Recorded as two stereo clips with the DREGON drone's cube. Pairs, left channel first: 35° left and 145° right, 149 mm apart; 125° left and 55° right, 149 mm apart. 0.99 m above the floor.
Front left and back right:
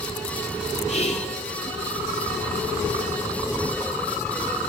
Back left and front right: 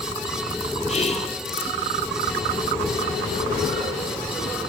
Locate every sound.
0.9 s whispering: 80° left, 2.5 m